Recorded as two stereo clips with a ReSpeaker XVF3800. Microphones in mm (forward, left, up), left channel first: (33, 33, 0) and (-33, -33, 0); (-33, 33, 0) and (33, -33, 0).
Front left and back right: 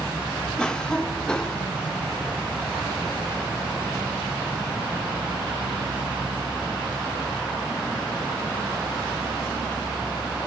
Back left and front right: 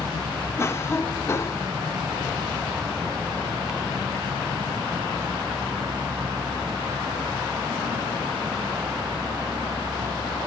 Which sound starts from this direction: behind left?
A cough, at 0.6 s.